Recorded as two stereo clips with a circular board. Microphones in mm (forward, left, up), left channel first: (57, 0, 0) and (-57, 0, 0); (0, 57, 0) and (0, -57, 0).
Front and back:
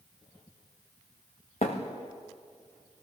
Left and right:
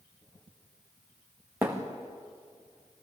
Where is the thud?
15° right, 3 m.